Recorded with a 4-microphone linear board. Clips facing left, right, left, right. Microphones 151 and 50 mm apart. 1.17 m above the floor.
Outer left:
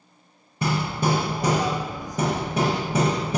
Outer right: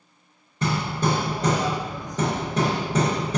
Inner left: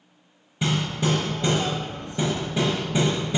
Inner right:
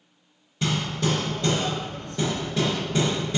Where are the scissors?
I don't hear scissors.